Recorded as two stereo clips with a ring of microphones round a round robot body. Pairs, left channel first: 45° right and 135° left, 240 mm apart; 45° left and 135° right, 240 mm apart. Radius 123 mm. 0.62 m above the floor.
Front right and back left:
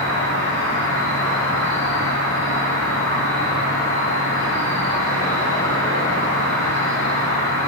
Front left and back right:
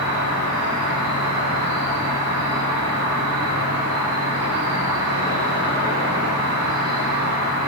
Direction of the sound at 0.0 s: 120° right.